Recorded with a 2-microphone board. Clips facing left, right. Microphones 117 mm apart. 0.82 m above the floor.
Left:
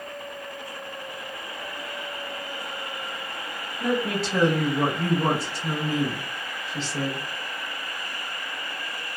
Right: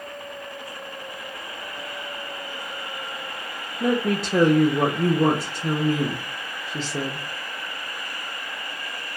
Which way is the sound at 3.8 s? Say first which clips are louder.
Right 3 dB; 45° right (ahead or behind).